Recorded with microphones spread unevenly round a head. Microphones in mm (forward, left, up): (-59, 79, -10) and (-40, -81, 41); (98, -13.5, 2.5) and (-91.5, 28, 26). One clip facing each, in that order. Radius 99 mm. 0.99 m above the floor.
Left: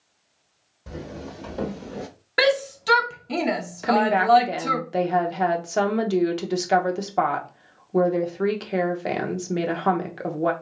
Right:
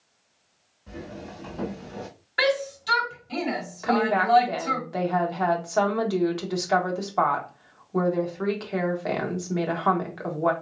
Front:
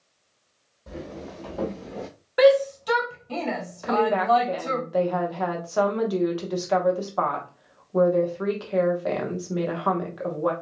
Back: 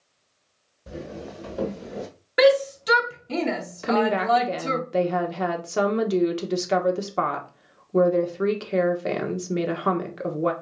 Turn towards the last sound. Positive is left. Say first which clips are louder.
# left 3 dB, even
turn(degrees=115)